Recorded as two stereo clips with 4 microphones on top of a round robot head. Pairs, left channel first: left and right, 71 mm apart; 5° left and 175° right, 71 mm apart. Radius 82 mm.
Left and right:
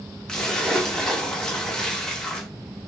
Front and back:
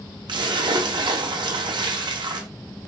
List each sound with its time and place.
0.3 s a splash: 175° left, 0.7 m